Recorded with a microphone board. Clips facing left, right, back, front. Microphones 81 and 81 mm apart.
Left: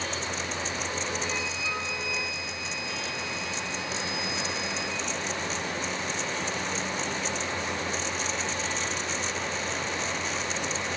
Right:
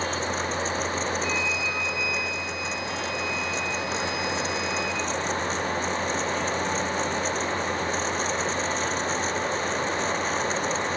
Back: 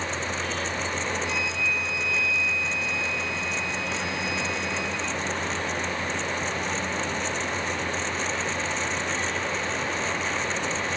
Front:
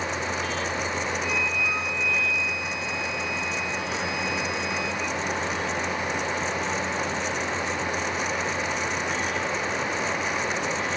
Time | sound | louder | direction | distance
1.2 | a flute | right 5 dB, front 1 dB | 30° left | 3 m